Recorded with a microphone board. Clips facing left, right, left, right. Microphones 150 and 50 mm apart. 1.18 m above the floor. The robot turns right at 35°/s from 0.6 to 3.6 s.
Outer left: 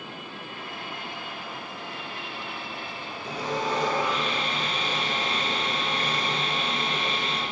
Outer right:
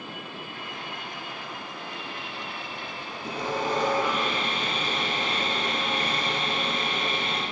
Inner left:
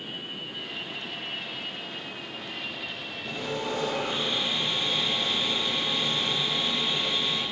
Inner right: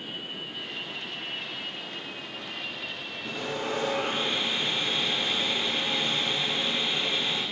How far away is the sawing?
About 2.0 m.